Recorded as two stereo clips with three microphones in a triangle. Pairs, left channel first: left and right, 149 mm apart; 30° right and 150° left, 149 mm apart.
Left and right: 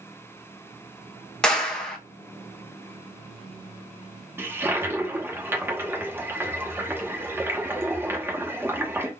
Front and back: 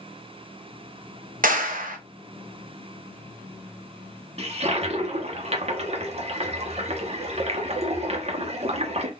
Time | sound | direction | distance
1.4 | a clap | 175° left | 0.8 m
4.4 | a toilet flushing | 165° right | 1.0 m